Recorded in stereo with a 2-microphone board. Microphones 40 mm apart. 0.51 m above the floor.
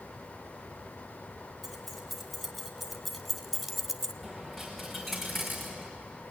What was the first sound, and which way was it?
Keys jangling, centre (ahead or behind).